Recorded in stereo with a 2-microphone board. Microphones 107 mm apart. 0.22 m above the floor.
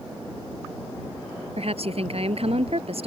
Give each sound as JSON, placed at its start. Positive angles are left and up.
{"t": 1.6, "sound": "a woman speaking", "side_deg": -70}